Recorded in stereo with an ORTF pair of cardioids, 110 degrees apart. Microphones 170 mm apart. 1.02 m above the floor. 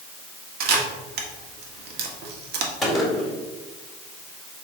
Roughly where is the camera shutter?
Right.